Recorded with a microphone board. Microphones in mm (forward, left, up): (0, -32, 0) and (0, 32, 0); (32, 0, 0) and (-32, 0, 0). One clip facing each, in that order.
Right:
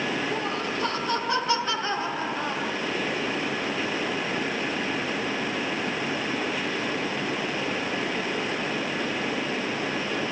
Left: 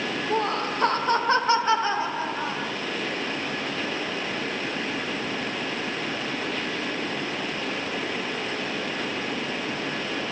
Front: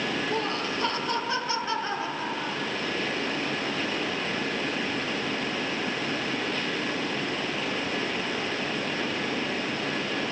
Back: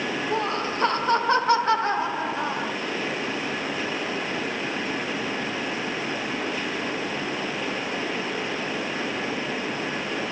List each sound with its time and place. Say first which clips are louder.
0.3 s laughter: left 3 dB, back 3 dB; 120° left, 1.6 m; by 2.7 s 170° left, 1.8 m